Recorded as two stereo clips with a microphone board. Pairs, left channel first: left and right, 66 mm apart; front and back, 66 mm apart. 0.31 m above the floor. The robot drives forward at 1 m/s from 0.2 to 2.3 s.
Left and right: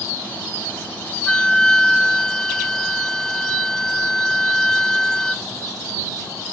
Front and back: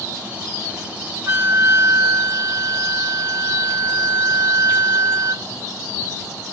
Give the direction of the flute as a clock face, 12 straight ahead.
7 o'clock.